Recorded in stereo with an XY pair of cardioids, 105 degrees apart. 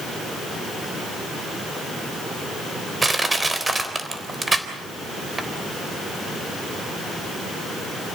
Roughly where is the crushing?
Ahead.